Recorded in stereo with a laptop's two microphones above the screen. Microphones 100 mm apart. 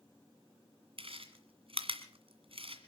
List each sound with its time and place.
1.0 s chewing: 65° right (ahead or behind), 1.9 m